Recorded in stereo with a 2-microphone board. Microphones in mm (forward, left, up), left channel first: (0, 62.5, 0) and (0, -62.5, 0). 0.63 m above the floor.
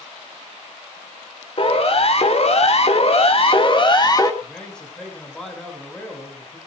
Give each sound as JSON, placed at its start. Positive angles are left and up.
{"t": 1.6, "sound": "a siren", "side_deg": 50, "distance_m": 3.0}
{"t": 4.4, "sound": "a man speaking", "side_deg": 5, "distance_m": 7.0}